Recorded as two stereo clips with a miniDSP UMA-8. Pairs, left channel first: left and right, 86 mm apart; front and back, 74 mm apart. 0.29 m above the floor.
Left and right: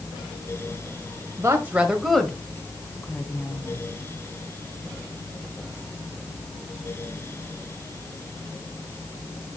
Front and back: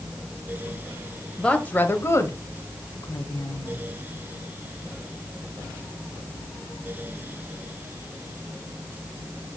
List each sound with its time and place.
1.4 s a woman speaking: 75° right, 1.3 m; by 3.8 s 35° left, 3 m